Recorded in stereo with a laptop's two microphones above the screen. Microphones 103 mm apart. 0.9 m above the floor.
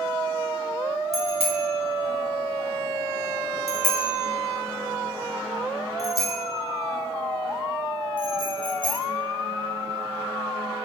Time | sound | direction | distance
1.1 | a bicycle bell | 90° right | 3.5 m